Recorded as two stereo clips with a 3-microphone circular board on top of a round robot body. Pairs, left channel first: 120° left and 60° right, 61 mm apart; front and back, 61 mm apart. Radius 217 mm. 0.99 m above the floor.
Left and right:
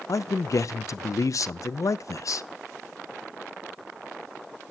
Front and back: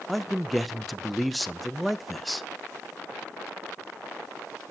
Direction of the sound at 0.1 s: 90° left.